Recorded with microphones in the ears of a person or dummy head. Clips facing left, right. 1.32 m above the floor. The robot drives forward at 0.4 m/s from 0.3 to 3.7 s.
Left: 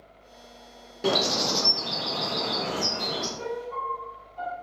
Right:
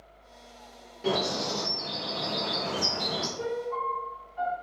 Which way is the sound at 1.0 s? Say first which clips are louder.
Left 3 dB; 60° left (ahead or behind).